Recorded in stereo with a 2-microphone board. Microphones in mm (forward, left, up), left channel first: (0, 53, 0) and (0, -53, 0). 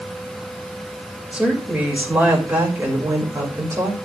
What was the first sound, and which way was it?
A woman speaking, 10° right (ahead or behind).